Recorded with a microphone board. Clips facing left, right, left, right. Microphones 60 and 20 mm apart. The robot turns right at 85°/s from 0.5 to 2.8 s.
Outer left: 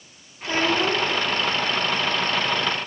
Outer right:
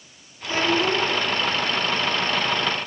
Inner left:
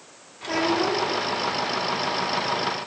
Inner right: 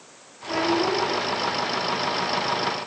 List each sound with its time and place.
0.4 s a child speaking: 60° left, 1.3 m; by 1.1 s 115° left, 1.3 m